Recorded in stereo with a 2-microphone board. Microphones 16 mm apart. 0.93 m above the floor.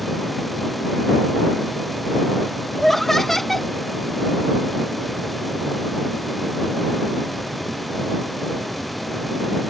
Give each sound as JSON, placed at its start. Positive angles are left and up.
{"t": 2.8, "sound": "laughter", "side_deg": 20}